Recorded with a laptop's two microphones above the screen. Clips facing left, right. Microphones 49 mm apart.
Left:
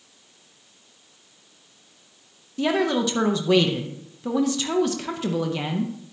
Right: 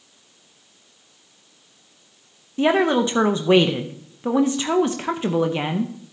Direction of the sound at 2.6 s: 30° right (ahead or behind).